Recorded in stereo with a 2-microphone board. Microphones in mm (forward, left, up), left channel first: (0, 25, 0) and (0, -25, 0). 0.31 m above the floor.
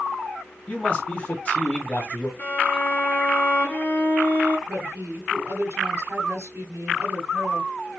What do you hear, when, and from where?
0.7 s a man speaking: 30° left (ahead or behind), 2 m
2.4 s a violin: 35° left (ahead or behind), 2.5 m
4.7 s a woman speaking: 55° right (ahead or behind), 1.9 m